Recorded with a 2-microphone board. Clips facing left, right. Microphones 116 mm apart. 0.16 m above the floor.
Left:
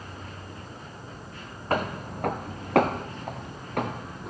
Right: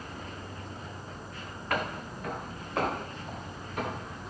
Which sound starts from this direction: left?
Footsteps, at 1.7 s.